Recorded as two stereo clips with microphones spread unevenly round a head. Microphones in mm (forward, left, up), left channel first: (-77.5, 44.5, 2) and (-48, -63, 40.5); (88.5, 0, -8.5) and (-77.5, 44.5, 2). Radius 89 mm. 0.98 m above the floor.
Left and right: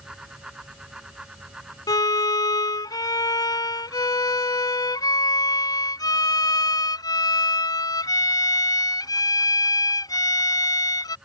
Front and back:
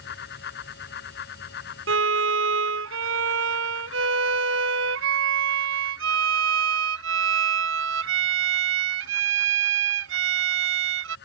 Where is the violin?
165° left.